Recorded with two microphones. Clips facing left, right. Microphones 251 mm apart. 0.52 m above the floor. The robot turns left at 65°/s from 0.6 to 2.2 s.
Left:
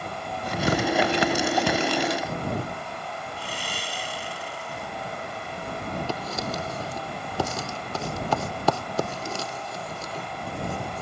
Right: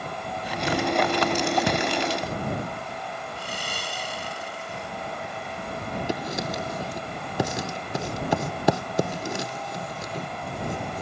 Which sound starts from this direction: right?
Sawing, at 3.4 s.